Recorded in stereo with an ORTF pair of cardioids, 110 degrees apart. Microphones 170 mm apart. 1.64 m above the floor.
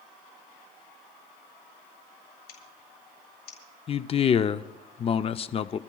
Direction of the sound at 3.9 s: 35° left.